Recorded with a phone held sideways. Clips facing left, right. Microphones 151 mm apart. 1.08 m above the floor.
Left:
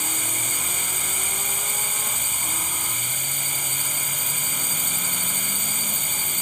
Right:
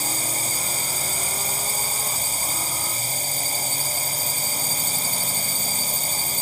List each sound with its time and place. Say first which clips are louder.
0.0 s a drone: right 3 dB; 35° right (ahead or behind)